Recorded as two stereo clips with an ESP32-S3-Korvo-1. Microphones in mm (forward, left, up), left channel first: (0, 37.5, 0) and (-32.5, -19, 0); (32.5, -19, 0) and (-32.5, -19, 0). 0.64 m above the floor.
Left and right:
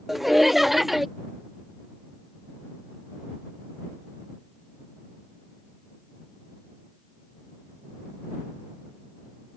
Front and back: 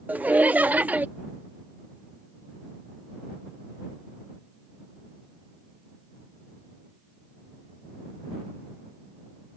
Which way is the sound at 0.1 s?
155° left.